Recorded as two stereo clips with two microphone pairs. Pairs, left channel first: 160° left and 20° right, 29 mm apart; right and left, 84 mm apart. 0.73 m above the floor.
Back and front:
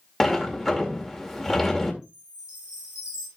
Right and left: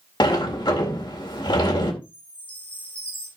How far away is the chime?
About 6 m.